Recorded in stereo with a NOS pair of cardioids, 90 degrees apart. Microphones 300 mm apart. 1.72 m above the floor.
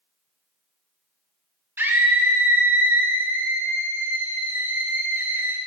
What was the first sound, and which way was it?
A scream, 5° right.